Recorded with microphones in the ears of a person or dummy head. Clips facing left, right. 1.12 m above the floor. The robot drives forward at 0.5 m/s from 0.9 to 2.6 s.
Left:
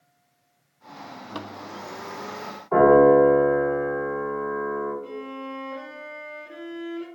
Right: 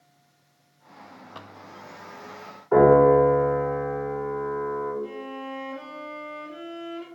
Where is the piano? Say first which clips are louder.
Left 1 dB; 15° right (ahead or behind), 1.6 m.